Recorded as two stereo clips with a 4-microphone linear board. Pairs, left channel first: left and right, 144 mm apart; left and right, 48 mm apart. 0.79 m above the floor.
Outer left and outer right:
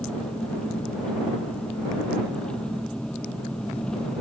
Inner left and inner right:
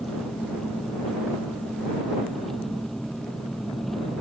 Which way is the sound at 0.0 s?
5° left (ahead or behind).